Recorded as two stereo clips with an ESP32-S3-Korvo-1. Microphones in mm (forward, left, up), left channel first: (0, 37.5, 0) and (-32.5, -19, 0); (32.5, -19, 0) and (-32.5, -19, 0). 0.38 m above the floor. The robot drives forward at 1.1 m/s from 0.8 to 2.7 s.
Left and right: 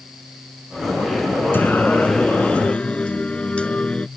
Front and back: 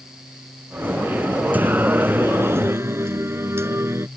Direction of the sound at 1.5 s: 115° left.